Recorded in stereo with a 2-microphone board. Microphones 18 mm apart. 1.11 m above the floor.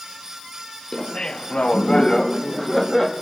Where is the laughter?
45° left (ahead or behind), 1.2 m; by 3.1 s 5° right (ahead or behind), 1.9 m.